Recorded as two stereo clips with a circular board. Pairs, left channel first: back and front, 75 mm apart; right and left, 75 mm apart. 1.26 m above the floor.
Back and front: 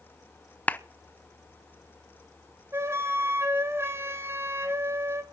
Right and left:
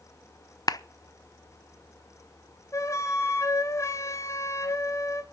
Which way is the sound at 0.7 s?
115° right.